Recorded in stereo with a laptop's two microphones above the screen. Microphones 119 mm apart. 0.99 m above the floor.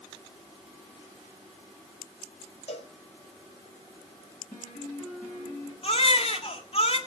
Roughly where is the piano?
Left.